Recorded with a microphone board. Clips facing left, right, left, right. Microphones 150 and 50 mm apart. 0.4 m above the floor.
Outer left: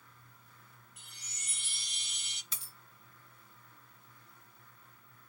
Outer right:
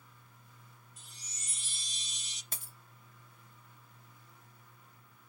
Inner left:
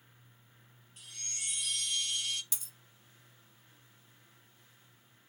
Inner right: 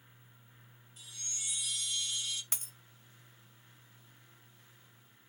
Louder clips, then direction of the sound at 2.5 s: Outer right 4 dB, inner right 3 dB; 55° right (ahead or behind).